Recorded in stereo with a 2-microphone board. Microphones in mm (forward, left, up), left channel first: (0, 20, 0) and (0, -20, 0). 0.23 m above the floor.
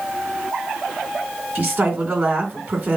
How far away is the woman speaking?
About 2.5 m.